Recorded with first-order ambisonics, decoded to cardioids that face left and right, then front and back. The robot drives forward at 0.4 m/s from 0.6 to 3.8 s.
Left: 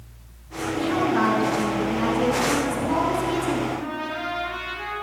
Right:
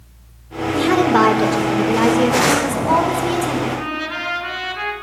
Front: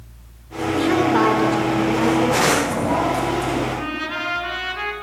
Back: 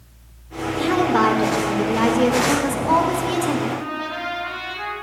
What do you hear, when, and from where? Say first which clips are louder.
0.7 s a woman speaking: right 8 dB, front 1 dB; 85° right, 1.2 m; by 3.6 s 135° right, 1.6 m
3.7 s a trumpet: right 5 dB, front 1 dB; 55° right, 2.0 m